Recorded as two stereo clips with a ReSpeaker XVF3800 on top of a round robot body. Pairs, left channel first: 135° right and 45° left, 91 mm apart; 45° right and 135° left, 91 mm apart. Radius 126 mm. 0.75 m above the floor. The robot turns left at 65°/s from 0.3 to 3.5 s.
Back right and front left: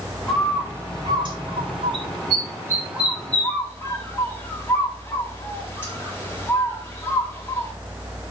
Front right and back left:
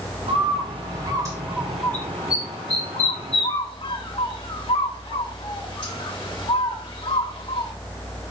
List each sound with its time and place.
0.3 s a bird: 140° left, 3.5 m; by 7.7 s 70° right, 3.5 m